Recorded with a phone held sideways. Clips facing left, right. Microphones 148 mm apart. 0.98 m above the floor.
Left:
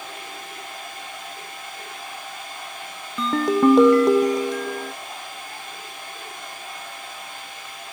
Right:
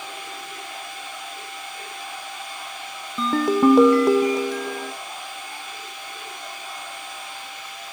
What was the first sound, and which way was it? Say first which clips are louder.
A machine running: right 1 dB; 60° left (ahead or behind).